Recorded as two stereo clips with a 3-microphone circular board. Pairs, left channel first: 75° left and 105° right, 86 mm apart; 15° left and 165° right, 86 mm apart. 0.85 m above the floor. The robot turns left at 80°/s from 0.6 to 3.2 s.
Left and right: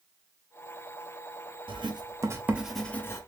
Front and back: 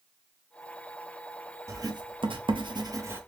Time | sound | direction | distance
1.7 | writing | 110° right | 0.7 m